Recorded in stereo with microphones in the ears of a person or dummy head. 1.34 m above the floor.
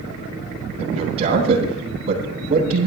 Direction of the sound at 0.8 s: 40° right (ahead or behind).